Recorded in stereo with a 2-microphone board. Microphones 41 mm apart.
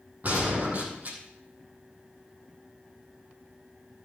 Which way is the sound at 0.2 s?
45° right (ahead or behind).